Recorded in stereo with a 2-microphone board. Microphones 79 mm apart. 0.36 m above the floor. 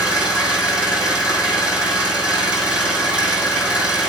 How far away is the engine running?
About 6 m.